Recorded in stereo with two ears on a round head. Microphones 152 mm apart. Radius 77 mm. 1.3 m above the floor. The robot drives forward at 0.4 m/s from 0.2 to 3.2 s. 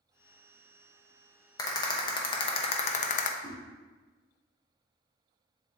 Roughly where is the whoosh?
Left.